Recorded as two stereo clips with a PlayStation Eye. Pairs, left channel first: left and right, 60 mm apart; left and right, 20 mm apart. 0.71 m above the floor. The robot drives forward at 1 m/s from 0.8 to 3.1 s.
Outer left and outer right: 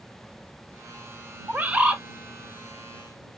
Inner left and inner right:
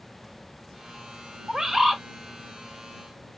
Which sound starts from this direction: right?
A bird, at 1.5 s.